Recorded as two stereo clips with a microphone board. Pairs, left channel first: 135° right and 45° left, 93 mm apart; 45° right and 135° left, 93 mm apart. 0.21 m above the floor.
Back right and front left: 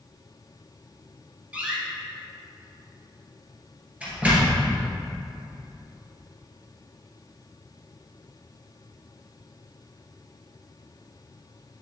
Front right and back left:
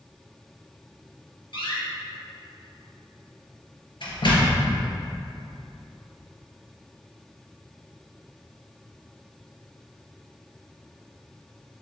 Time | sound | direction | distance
1.5 | a door slam | 30° right | 3 m